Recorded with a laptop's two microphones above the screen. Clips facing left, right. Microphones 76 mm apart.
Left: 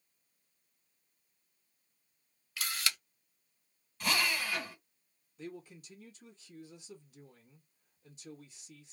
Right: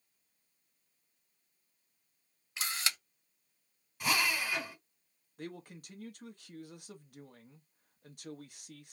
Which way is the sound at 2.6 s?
25° right (ahead or behind).